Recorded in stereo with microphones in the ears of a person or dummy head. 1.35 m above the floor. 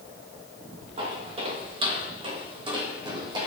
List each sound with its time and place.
1.0 s footsteps: 30° right (ahead or behind), 4 m; by 3.5 s 20° right (ahead or behind), 2.5 m